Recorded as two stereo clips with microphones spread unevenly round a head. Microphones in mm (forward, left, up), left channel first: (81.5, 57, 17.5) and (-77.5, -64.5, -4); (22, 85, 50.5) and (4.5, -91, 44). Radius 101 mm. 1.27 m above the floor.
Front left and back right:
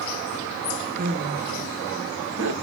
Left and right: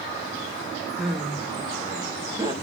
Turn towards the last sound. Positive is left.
turn(degrees=-165)